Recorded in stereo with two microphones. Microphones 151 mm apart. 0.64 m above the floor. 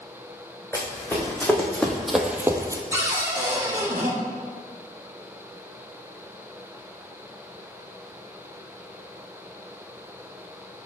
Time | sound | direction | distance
0.7 | running footsteps | 15° left (ahead or behind) | 2.5 m
2.9 | a cupboard door | 15° right (ahead or behind) | 1.0 m